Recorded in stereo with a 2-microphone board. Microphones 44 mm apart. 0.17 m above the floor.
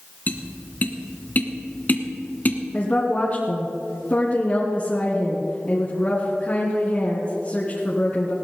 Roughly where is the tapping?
Left.